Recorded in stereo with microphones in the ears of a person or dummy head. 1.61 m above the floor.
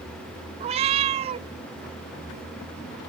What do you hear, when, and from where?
0.6 s a cat meowing: 35° right (ahead or behind)